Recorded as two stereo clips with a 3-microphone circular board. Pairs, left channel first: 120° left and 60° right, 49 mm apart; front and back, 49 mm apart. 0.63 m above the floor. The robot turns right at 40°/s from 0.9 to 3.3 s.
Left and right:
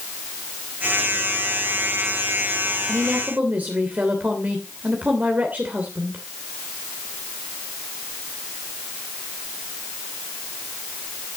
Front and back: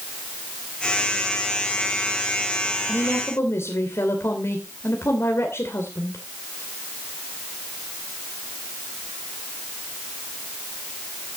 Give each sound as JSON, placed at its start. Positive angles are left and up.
{"t": 2.9, "sound": "a woman speaking", "azimuth_deg": -30, "distance_m": 2.5}